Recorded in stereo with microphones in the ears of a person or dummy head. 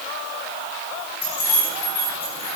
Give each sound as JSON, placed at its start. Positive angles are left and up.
{"t": 1.2, "sound": "keys jangling", "side_deg": 25, "distance_m": 3.5}